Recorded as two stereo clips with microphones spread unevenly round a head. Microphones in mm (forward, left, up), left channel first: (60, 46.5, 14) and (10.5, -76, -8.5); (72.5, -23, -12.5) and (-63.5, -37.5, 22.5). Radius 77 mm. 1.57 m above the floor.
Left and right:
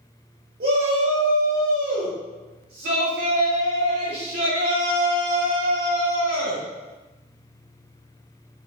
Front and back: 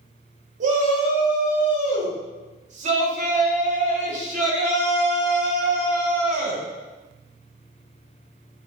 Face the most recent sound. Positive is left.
turn(degrees=-140)